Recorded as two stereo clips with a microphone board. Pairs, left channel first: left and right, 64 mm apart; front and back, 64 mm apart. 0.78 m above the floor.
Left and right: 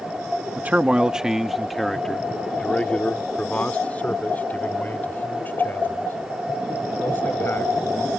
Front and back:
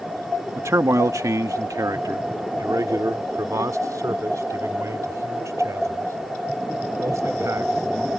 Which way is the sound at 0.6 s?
150° right.